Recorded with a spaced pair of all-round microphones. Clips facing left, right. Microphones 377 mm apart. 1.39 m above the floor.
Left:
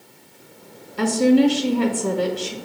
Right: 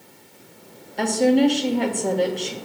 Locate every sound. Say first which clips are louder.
1.0 s a woman speaking: left 2 dB; 15° left (ahead or behind), 1.0 m